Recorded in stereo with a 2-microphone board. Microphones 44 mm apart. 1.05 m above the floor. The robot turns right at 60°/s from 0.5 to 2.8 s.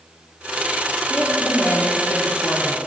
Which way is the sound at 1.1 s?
30° left.